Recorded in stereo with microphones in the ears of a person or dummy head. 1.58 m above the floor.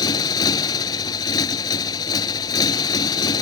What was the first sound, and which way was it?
A motorcycle, 30° left (ahead or behind).